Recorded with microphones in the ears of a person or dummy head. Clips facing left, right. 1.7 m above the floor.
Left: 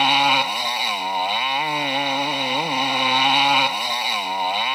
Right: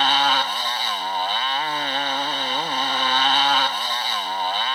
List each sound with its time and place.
0.0 s a motorcycle: 10° left (ahead or behind)